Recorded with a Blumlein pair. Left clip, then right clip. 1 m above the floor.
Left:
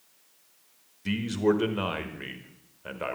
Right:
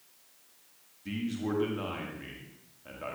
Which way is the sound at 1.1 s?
50° left.